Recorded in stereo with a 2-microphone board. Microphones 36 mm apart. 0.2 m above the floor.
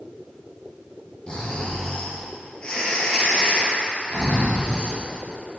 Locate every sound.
1.3 s snoring: 30° left (ahead or behind), 3.5 m